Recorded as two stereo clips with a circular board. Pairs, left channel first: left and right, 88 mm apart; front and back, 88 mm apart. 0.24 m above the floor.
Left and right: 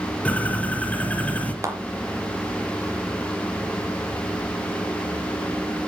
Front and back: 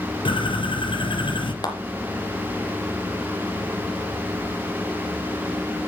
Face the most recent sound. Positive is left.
turn(degrees=-35)